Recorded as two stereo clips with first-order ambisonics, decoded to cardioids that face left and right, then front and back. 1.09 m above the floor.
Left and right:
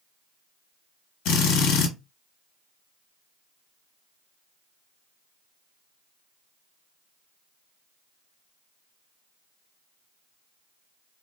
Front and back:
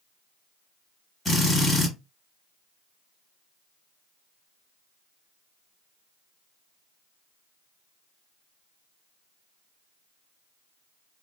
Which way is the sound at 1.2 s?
75° left.